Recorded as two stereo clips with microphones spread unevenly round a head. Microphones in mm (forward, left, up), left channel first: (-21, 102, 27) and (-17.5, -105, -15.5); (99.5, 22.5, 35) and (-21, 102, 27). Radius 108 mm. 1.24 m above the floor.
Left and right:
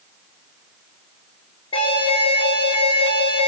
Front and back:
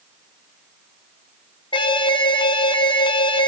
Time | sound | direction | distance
1.7 | an alarm | 25° left | 3 m